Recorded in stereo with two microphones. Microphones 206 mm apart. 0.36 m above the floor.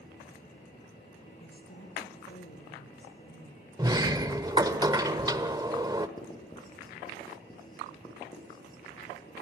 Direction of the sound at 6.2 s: 20° left (ahead or behind).